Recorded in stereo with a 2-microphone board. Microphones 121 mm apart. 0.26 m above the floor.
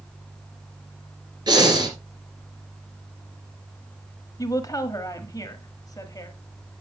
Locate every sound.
1.5 s breathing: 35° right (ahead or behind), 2 m
4.4 s a woman speaking: 30° left (ahead or behind), 1.0 m